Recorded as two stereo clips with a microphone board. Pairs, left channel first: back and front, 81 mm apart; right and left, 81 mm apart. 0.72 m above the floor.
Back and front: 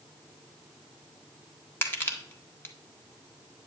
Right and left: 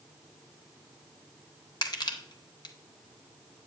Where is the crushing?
120° right, 1.7 m.